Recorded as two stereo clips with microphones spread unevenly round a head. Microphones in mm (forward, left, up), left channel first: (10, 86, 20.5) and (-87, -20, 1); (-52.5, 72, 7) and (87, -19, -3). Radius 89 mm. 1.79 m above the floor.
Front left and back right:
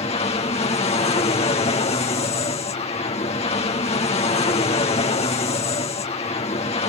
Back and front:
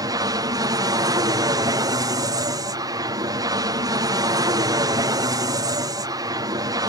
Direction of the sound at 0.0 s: 15° left.